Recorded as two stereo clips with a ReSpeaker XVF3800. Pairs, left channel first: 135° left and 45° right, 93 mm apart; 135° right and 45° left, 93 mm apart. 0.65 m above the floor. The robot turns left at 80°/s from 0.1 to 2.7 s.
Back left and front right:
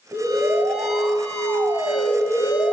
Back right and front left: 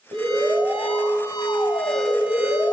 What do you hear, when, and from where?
0.1 s an alarm: 20° left, 5 m; by 2.7 s 170° left, 5 m